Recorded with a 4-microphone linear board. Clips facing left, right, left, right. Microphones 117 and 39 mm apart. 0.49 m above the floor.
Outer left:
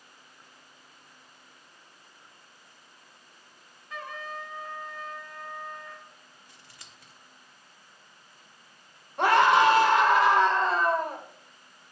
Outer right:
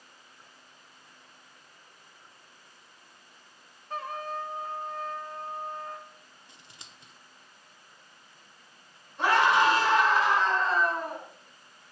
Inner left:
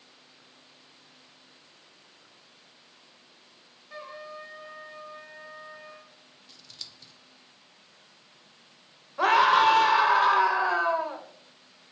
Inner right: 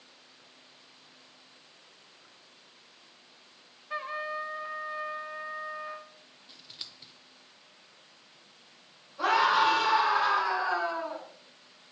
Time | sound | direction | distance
3.9 | a trumpet | 35° right (ahead or behind) | 0.8 m
6.5 | scissors | 20° right (ahead or behind) | 0.8 m
9.2 | a scream | 60° left (ahead or behind) | 1.6 m